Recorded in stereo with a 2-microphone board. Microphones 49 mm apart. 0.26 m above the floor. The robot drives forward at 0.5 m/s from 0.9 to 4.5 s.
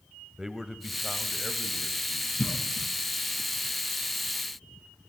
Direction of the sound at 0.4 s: 10° right (ahead or behind).